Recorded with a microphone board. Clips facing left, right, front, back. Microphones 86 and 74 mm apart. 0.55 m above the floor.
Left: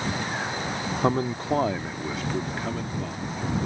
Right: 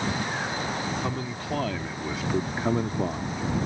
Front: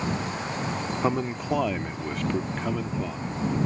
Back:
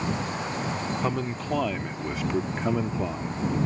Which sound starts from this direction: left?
A man speaking, at 1.0 s.